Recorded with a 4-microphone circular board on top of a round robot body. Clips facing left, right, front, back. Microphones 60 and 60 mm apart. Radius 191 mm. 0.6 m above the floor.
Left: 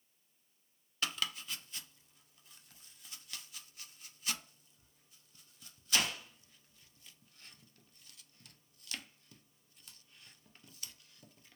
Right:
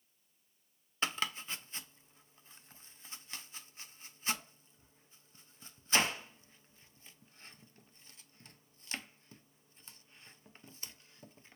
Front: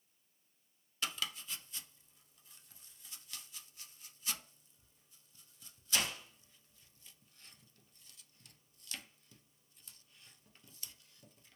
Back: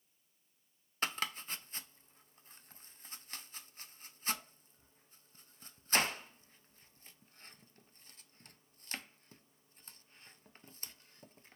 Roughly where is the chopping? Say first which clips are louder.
Right 3 dB, back 4 dB; behind right.